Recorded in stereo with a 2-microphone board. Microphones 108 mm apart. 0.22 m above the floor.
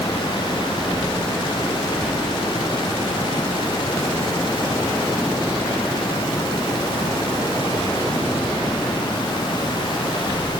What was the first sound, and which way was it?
Only background noise.